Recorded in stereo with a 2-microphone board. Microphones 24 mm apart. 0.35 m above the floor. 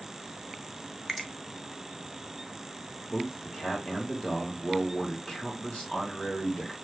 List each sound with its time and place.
1.1 s a finger snap: 10° left (ahead or behind), 0.6 m
3.1 s a man speaking: 35° left (ahead or behind), 1.3 m